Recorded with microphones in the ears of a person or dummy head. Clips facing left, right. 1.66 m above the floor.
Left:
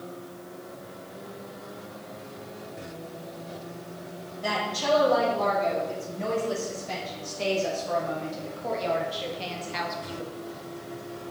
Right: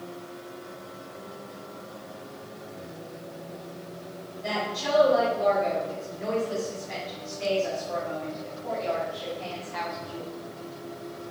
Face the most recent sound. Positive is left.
turn(degrees=25)  # may be behind; listen again after turning